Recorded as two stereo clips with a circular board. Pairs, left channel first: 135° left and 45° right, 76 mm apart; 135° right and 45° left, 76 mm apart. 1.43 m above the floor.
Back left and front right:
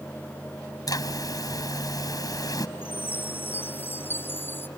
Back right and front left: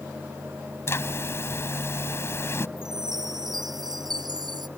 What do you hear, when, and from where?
0.9 s a zipper: 170° left
2.8 s a chime: 75° left